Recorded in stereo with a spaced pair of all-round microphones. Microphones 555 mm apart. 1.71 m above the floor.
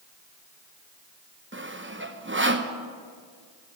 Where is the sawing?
20° right (ahead or behind), 0.9 m.